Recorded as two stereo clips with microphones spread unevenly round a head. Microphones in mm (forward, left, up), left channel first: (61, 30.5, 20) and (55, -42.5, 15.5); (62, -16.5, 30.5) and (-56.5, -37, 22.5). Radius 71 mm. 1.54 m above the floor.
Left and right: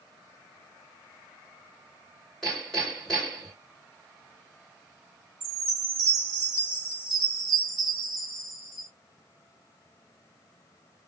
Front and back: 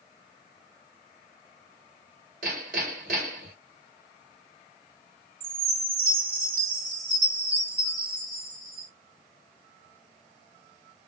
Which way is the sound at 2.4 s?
170° left.